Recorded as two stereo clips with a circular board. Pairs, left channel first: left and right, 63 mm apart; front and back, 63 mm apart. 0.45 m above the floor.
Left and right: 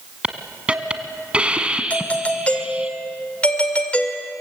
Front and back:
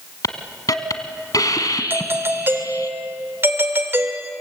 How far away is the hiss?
About 1.5 m.